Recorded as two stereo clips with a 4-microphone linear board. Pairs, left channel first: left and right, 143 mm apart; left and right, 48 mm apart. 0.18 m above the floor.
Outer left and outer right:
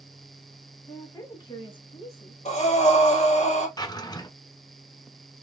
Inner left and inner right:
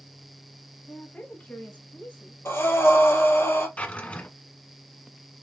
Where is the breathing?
55° left (ahead or behind), 1.6 m.